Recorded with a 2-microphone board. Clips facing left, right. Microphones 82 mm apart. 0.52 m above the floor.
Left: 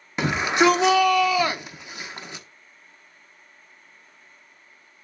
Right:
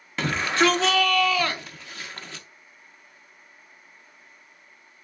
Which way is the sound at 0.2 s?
15° left (ahead or behind).